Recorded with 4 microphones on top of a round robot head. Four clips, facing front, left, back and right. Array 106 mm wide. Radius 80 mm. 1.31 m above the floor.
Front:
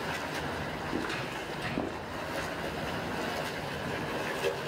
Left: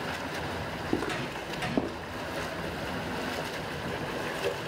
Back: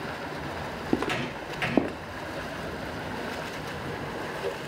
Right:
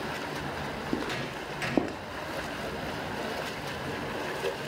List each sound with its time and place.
0.9 s footsteps: 175° left, 2.5 m; by 2.0 s 150° right, 1.6 m